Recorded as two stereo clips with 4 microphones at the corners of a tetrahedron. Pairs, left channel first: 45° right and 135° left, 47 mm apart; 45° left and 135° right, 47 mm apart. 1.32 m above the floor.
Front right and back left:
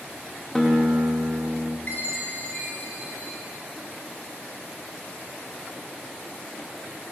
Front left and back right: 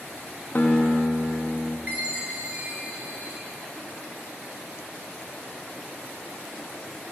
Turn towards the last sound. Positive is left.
turn(degrees=-90)